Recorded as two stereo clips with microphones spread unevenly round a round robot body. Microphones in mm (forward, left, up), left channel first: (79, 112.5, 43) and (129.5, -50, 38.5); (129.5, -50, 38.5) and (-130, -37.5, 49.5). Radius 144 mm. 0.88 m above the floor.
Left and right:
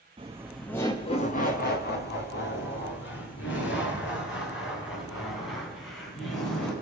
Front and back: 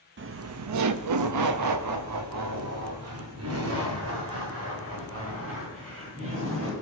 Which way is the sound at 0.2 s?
135° right.